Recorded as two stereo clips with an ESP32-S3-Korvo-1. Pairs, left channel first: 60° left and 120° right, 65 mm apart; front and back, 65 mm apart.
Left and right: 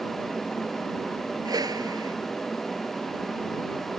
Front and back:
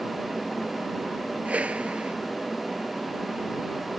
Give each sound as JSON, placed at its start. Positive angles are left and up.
{"t": 1.4, "sound": "a whoosh", "azimuth_deg": -110}